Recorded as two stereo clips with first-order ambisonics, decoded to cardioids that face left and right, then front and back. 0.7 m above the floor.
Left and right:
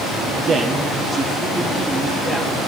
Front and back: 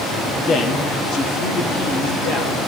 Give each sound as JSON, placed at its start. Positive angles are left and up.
{"t": 0.5, "sound": "a man speaking", "azimuth_deg": -45, "distance_m": 1.1}